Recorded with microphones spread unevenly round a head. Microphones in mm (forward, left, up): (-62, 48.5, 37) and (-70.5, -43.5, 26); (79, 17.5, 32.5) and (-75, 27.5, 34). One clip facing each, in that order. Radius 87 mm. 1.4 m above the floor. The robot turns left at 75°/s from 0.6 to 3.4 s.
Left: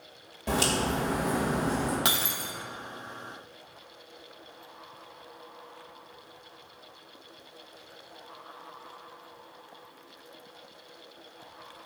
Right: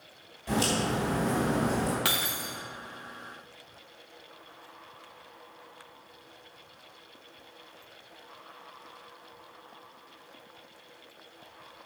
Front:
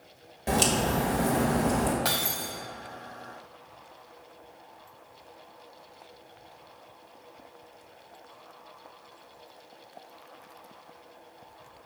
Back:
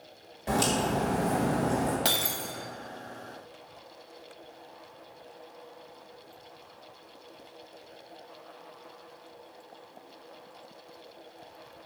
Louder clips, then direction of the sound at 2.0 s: Left 1 dB, even; 130° left.